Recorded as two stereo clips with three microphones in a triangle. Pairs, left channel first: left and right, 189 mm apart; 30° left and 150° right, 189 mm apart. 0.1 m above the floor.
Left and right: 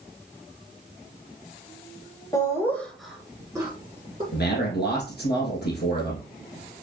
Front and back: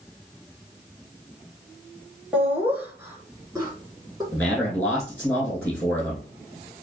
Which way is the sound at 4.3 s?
110° left.